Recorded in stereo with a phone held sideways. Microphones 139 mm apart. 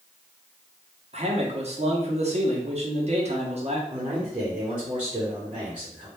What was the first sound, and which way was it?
A man speaking, 50° right (ahead or behind).